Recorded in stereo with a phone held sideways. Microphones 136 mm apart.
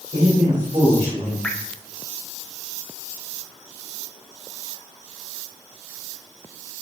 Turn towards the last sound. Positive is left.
turn(degrees=10)  # may be behind; listen again after turning